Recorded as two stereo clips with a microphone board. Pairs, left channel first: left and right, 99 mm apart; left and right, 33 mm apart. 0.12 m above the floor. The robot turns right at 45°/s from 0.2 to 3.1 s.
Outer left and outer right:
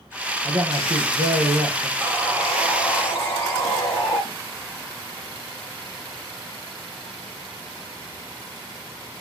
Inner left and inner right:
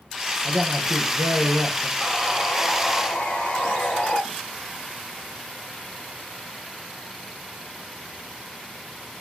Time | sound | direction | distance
0.5 | a man speaking | 100° right | 4 m
2.0 | sawing | 25° right | 5.5 m